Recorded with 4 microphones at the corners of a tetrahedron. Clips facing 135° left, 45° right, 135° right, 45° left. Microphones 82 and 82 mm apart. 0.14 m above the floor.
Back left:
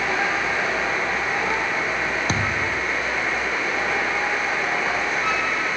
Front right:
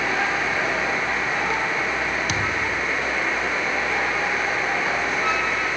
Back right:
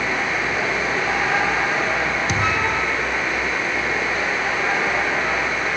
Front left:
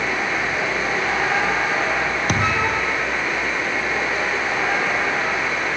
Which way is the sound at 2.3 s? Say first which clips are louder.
Back left 1 dB, front left 1 dB; 80° left.